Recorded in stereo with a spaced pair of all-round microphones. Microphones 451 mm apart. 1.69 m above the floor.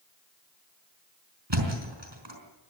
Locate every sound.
1.5 s a thud: 65° right (ahead or behind), 4.5 m